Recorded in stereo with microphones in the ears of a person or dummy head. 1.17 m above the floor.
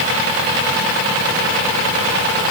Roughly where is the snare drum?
I don't hear a snare drum.